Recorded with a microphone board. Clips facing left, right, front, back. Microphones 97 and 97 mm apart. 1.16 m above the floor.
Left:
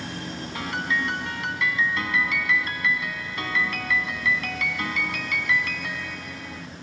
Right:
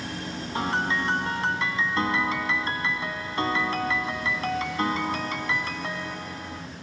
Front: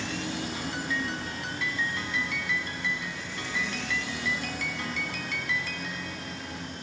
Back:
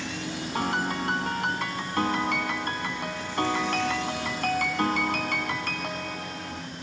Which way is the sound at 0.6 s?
150° right.